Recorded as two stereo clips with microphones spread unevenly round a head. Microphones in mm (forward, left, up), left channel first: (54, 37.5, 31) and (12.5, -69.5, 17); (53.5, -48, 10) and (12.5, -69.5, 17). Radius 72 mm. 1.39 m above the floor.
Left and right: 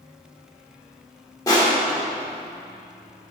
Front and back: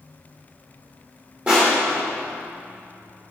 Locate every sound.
1.5 s crushing: 135° left, 1.8 m